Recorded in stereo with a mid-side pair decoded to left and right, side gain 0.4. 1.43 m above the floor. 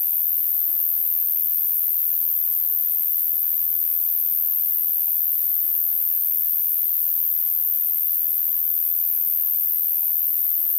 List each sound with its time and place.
0.0 s an insect: 40° left, 0.9 m